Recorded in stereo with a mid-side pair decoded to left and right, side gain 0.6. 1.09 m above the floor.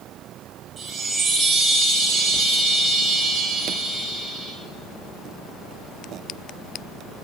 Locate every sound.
0.8 s a chime: 30° right, 5 m